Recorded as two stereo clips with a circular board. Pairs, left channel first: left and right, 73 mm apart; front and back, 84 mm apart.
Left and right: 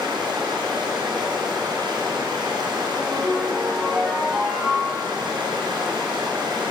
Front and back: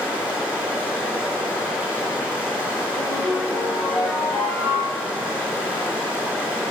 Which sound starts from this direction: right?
Running water, at 0.0 s.